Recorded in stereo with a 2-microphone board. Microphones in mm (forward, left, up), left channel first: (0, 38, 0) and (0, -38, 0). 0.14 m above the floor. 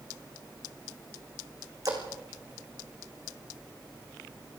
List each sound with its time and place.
1.9 s a splash: 50° right (ahead or behind), 4 m